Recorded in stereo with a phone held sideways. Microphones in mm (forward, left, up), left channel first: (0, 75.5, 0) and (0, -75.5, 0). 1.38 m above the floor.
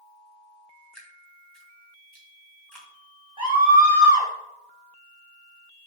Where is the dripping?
5° left (ahead or behind), 2.5 m.